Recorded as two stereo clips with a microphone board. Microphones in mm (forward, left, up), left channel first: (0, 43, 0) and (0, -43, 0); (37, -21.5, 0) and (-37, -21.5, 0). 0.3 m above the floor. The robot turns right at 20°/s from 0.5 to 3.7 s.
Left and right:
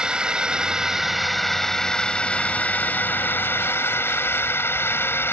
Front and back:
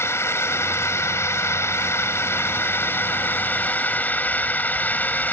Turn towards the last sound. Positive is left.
turn(degrees=50)